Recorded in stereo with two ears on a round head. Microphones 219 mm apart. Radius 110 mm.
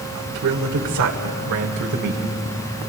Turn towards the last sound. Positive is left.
turn(degrees=-45)  # may be behind; listen again after turning